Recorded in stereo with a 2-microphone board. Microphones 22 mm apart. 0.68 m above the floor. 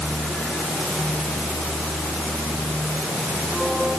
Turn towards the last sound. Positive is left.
No sound to turn to.